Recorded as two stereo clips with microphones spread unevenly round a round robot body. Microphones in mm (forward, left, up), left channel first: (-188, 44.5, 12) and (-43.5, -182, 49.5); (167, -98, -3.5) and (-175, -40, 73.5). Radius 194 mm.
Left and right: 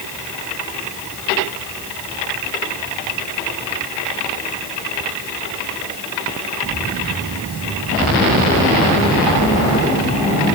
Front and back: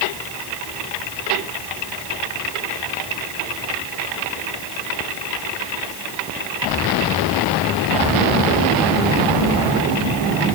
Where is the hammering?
No hammering in this recording.